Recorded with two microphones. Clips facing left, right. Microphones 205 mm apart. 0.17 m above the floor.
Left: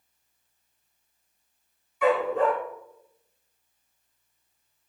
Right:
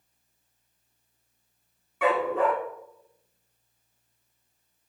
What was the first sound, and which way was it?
A dog barking, 70° right (ahead or behind).